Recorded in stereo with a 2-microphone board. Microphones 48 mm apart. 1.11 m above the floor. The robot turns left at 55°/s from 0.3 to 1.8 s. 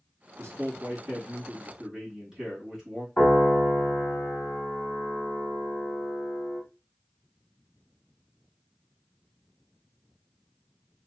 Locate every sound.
0.4 s a man speaking: 95° right, 1.8 m; by 3.1 s 170° right, 1.8 m
3.2 s a piano: 50° left (ahead or behind), 1.7 m